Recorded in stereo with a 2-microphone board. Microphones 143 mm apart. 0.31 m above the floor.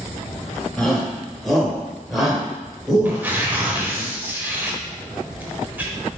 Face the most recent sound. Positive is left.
turn(degrees=-15)  # may be behind; listen again after turning